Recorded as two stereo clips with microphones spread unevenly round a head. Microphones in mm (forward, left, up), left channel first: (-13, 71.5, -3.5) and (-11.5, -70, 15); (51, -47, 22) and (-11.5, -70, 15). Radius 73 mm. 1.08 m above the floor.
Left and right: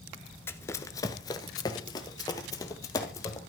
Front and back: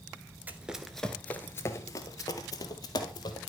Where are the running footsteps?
155° left, 1.0 m; by 3.4 s 20° left, 2.5 m.